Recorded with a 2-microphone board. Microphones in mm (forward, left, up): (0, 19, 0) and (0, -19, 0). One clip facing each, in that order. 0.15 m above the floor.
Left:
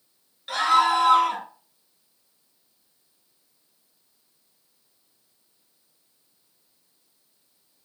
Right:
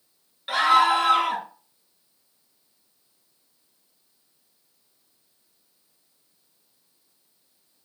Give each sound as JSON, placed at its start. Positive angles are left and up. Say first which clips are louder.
{"t": 0.5, "sound": "a scream", "louder": "right 1 dB", "side_deg": -20, "distance_m": 2.5}